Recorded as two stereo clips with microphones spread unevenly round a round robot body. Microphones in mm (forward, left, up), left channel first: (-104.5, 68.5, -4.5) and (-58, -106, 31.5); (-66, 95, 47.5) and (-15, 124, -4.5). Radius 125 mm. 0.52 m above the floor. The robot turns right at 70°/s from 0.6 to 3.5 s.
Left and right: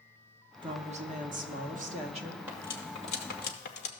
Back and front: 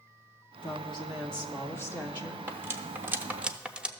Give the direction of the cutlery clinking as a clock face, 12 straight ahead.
12 o'clock.